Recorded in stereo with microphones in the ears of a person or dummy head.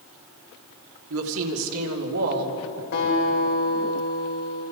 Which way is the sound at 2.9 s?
60° left (ahead or behind).